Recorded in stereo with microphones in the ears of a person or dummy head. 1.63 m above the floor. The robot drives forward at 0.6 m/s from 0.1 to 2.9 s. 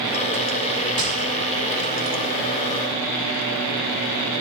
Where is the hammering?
35° right (ahead or behind), 6 m.